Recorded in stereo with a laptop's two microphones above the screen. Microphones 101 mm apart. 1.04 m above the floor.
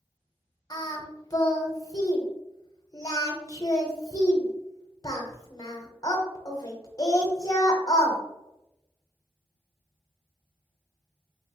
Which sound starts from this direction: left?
Singing, at 0.7 s.